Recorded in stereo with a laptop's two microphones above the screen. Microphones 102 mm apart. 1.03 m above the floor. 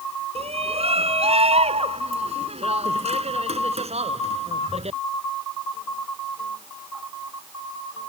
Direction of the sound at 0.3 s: 75° right (ahead or behind).